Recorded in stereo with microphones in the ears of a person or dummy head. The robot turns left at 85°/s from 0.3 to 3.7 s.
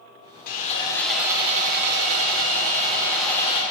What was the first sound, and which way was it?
Sawing, 55° left.